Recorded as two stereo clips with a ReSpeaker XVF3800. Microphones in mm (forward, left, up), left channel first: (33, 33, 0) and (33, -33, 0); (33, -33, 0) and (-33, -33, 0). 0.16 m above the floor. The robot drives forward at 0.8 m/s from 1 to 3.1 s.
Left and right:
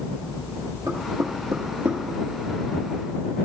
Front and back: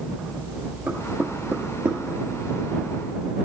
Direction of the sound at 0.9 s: 110° right.